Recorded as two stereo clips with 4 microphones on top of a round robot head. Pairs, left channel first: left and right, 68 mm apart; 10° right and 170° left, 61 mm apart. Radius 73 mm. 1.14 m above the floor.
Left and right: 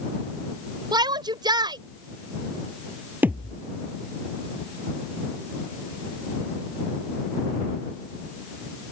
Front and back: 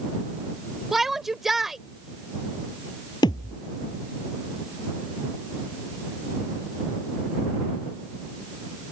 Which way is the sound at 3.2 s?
20° right.